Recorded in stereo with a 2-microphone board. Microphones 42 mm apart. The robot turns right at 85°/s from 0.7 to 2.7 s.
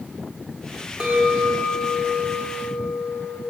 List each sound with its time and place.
1.0 s a clink: 165° right, 1.5 m; by 3.4 s 20° right, 1.5 m